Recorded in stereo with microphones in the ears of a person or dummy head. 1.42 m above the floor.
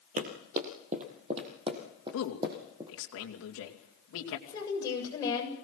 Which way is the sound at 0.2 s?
45° right (ahead or behind).